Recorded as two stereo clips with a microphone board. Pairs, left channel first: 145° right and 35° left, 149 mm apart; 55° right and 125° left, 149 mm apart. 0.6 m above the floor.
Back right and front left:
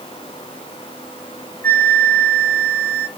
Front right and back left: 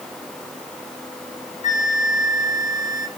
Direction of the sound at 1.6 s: 70° right.